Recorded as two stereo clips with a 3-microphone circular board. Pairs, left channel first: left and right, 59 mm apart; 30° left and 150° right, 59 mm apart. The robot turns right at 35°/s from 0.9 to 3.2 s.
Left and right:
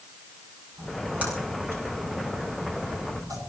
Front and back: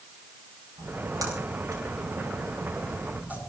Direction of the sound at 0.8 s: 165° right.